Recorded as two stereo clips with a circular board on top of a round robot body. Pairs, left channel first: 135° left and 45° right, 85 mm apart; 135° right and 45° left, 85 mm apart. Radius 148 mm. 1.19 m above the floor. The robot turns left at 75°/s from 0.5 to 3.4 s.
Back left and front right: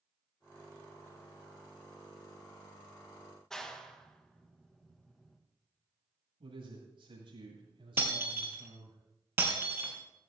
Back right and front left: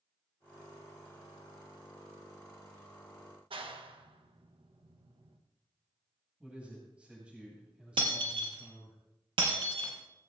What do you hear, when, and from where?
3.5 s a clap: 50° left, 1.7 m
6.4 s a man speaking: 30° right, 8 m
8.0 s breaking glass: 20° left, 3.5 m